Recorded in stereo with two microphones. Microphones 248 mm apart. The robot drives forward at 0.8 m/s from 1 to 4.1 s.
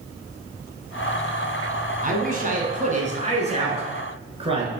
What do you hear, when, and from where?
2.0 s a man speaking: 35° right (ahead or behind), 1.7 m; by 4.7 s 25° right (ahead or behind), 2.5 m